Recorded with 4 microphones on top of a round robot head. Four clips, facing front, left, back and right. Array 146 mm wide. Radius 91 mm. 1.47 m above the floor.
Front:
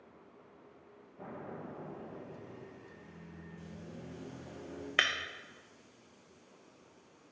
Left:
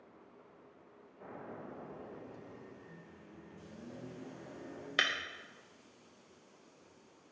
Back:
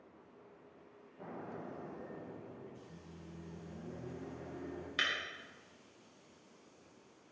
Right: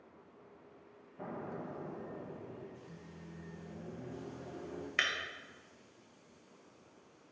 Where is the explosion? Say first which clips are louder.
Right 5 dB, front 1 dB; 80° right, 1.7 m.